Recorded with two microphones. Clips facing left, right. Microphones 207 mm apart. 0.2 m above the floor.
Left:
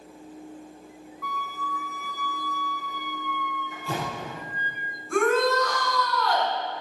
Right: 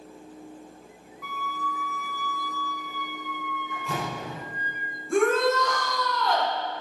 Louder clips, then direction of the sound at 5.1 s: Even; 25° right (ahead or behind).